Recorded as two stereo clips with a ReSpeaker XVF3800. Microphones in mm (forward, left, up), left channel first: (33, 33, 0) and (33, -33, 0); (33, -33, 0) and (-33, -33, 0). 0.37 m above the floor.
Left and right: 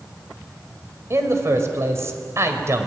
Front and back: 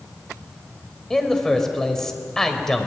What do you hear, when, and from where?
1.1 s a man speaking: 80° right, 2 m